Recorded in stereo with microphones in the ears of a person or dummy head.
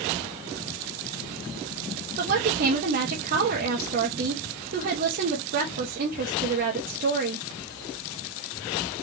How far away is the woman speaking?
About 1.6 m.